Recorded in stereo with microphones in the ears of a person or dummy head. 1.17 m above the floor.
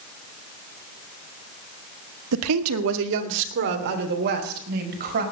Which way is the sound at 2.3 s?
85° right.